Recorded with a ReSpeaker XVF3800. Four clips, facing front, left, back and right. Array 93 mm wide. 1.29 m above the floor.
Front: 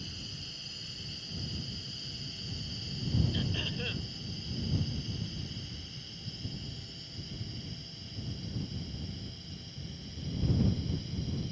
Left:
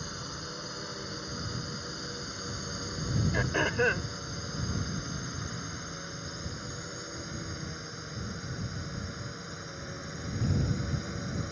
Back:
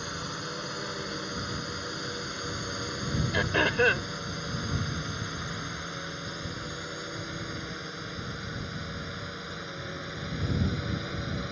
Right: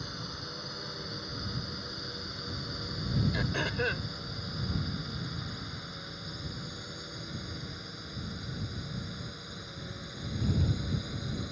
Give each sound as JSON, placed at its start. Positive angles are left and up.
{"t": 0.0, "sound": "a drone", "azimuth_deg": 170}
{"t": 3.3, "sound": "throat clearing", "azimuth_deg": 160}